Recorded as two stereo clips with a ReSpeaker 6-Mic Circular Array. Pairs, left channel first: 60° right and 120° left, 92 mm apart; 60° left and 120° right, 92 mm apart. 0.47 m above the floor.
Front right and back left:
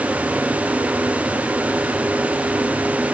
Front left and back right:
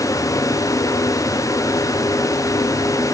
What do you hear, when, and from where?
Only background noise.